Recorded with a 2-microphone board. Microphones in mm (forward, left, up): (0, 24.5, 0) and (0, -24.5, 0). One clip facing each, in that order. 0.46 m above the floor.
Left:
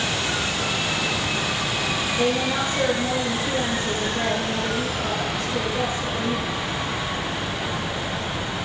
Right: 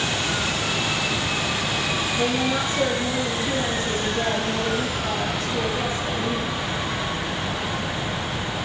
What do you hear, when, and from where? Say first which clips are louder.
2.1 s a woman speaking: left 1 dB; 70° left (ahead or behind), 9 m